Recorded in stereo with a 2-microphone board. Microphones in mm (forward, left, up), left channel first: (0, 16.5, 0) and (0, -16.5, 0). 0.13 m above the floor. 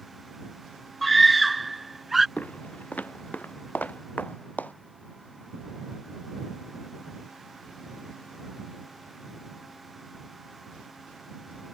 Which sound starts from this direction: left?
Footsteps, at 2.4 s.